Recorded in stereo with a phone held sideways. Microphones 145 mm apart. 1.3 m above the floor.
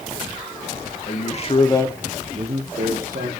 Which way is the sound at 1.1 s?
55° left (ahead or behind).